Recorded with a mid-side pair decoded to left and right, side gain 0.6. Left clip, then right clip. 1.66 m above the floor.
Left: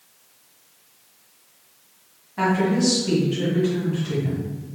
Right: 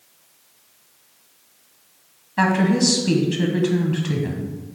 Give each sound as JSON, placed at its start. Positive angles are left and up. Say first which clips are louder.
{"t": 2.4, "sound": "a woman speaking", "louder": "right 2 dB", "azimuth_deg": -35, "distance_m": 1.2}